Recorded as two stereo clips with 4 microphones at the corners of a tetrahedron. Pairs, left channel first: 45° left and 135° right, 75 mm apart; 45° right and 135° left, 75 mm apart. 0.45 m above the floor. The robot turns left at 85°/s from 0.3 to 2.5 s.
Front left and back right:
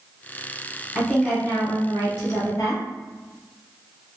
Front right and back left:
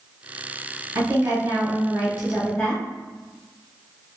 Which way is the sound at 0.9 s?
145° left.